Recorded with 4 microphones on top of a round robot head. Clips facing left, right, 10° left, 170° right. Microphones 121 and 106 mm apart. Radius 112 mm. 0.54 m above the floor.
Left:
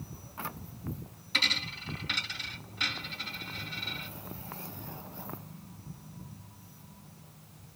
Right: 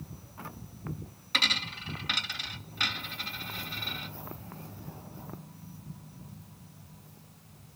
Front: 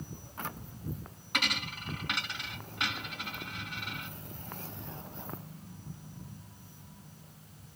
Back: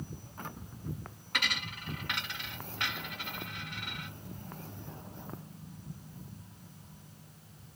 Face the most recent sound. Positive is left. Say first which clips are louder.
# right 2 dB, front 2 dB
turn(degrees=-65)